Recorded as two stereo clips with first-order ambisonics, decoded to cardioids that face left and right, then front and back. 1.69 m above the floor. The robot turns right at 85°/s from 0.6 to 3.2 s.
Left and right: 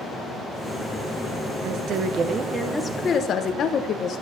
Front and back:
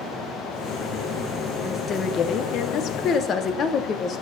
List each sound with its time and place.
1.6 s a woman speaking: 85° right, 0.9 m; by 4.2 s 50° left, 0.9 m